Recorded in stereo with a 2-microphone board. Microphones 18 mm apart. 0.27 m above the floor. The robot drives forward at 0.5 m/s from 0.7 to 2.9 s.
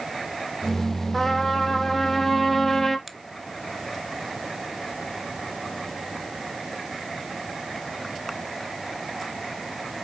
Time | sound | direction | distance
1.1 | a trumpet | 20° left (ahead or behind) | 2.5 m
3.1 | a finger snap | 5° left (ahead or behind) | 0.8 m